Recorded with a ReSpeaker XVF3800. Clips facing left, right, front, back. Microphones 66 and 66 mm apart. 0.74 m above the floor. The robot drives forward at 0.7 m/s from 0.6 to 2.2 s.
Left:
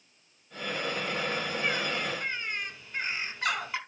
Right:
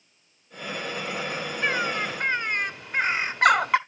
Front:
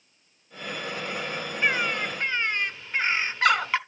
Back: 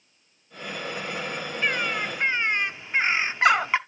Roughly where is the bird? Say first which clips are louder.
Right 8 dB, front 1 dB; right.